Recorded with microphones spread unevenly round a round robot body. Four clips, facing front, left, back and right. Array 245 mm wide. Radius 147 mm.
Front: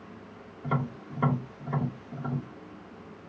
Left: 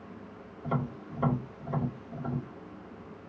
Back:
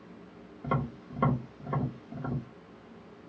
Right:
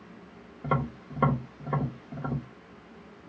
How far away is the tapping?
About 2.5 m.